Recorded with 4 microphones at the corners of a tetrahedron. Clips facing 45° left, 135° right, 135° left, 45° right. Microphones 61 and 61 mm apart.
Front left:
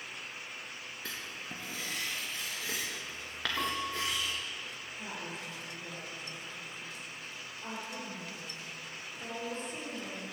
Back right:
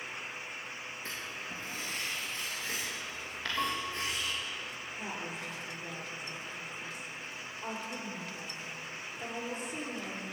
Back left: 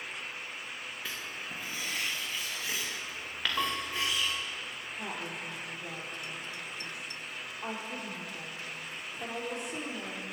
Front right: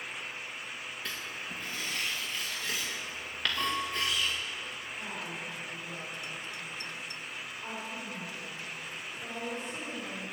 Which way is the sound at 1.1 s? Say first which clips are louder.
Even, front right 1 dB; 50° left.